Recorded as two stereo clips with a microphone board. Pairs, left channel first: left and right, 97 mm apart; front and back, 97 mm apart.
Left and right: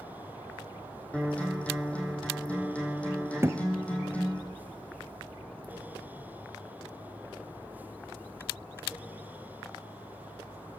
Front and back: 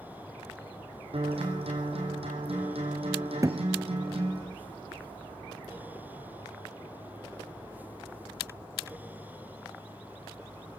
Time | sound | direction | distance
1.1 | a guitar | 165° left | 5 m
3.4 | a thud | 140° right | 0.8 m